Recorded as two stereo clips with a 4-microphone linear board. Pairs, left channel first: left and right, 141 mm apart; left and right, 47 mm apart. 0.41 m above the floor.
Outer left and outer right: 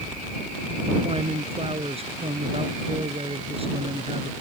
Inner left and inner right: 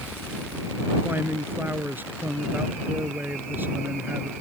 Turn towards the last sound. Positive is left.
turn(degrees=-45)  # may be behind; listen again after turning